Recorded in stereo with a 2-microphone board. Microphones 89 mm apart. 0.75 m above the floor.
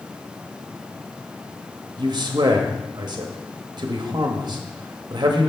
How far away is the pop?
I don't hear a pop.